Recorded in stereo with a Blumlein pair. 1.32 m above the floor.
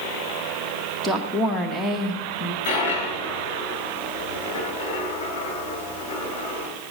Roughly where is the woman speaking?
Ahead.